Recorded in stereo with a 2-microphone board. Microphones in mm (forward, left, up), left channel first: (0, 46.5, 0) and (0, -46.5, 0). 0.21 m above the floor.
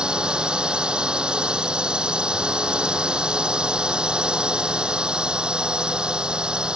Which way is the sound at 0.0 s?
10° right (ahead or behind).